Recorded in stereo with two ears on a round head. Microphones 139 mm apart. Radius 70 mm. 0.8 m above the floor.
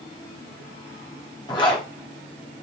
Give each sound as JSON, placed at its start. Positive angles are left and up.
{"t": 1.5, "sound": "a zipper", "side_deg": 30, "distance_m": 0.8}